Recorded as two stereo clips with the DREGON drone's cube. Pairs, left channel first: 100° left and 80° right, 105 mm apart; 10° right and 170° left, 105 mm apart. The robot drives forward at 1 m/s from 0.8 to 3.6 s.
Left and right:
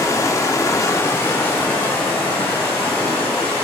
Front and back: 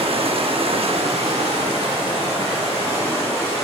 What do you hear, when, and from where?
0.0 s running water: 160° left, 0.8 m; by 3.6 s 175° left, 3.5 m